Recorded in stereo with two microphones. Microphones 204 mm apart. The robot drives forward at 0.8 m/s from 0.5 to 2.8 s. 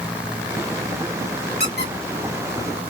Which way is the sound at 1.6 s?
50° left (ahead or behind).